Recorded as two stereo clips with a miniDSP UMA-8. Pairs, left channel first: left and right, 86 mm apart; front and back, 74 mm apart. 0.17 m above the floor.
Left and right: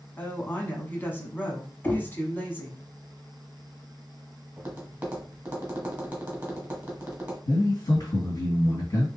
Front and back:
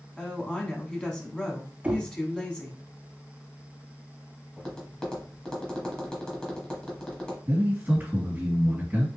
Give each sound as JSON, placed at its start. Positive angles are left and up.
{"t": 0.2, "sound": "a woman speaking", "azimuth_deg": 60, "distance_m": 1.1}
{"t": 1.8, "sound": "knocking", "azimuth_deg": 130, "distance_m": 0.7}
{"t": 4.6, "sound": "tapping", "azimuth_deg": -50, "distance_m": 1.3}
{"t": 7.5, "sound": "a man speaking", "azimuth_deg": 115, "distance_m": 2.5}